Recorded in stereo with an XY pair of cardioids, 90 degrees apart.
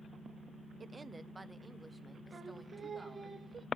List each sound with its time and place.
0.8 s a woman speaking: 40° right, 0.7 m; by 3.3 s straight ahead, 2.5 m
2.3 s singing: 40° right, 1.0 m